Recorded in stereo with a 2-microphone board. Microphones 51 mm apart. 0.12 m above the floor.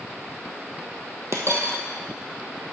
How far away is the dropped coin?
About 1.1 m.